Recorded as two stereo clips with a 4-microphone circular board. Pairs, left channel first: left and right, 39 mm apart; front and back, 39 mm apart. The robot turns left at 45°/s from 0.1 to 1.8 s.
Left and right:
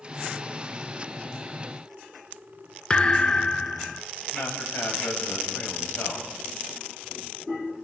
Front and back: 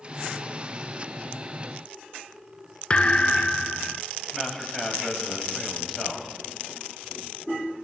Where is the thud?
45° left, 0.7 m.